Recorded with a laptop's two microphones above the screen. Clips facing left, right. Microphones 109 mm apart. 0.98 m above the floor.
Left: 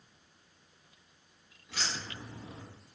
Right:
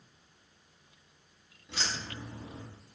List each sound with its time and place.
1.7 s keys jangling: 30° right (ahead or behind), 1.5 m